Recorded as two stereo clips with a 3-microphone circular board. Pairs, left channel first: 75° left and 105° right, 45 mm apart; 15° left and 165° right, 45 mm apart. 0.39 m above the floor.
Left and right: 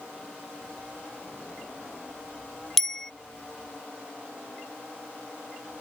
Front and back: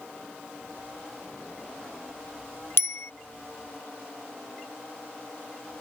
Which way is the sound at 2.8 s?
5° right.